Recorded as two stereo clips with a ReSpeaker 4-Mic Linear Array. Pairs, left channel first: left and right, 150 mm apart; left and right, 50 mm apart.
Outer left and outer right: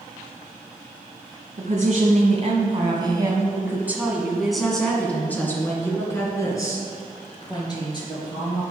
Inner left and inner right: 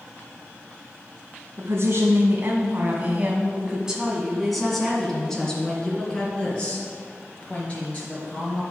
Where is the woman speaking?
55° right (ahead or behind), 1.9 m; by 8.6 s 30° left (ahead or behind), 4 m.